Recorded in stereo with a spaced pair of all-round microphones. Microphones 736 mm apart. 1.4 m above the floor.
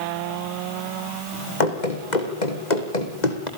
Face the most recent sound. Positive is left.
turn(degrees=65)  # may be behind; listen again after turning